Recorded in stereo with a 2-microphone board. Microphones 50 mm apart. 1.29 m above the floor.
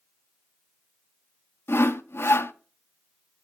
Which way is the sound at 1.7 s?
55° left (ahead or behind).